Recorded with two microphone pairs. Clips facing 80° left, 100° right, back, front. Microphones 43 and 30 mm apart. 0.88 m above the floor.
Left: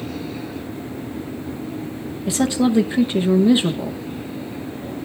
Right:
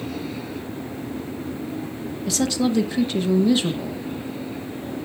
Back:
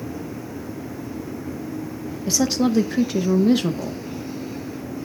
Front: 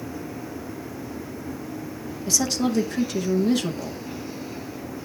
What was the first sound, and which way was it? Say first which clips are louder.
A woman speaking: left 4 dB, back 3 dB; 130° left.